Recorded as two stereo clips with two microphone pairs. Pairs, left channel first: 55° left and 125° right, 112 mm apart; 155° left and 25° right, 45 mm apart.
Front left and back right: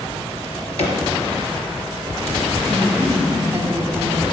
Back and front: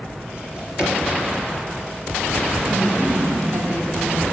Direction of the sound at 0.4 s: 40° left.